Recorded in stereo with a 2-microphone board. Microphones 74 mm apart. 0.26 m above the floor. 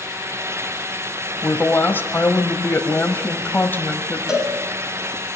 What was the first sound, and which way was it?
A woman speaking, 25° left (ahead or behind).